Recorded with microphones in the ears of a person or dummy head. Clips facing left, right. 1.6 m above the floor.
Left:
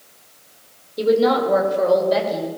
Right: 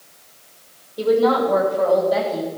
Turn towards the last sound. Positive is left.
turn(degrees=45)  # may be behind; listen again after turning